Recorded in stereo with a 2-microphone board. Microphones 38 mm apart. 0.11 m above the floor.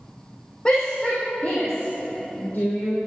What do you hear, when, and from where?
0.7 s a shout: 30° left (ahead or behind), 4 m; by 3.0 s 55° left (ahead or behind), 4 m